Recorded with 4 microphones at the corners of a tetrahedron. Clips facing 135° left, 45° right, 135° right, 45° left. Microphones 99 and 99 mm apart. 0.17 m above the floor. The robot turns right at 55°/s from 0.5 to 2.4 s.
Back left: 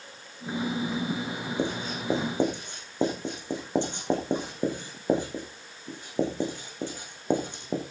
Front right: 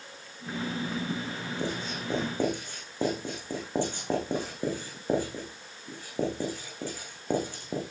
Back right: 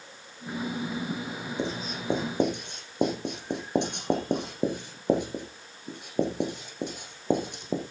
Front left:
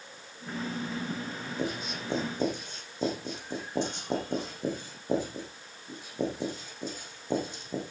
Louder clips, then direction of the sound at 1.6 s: Back left 4 dB, back right 1 dB; 160° left.